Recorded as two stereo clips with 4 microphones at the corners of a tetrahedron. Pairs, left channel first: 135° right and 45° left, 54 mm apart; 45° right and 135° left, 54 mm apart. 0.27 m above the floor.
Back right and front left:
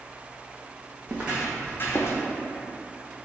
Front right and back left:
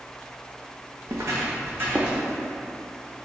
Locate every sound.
1.1 s footsteps: 105° left, 1.0 m; by 2.2 s 155° right, 1.0 m